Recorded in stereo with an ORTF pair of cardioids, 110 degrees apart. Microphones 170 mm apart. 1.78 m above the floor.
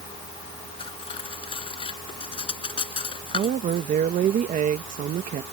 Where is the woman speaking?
55° right.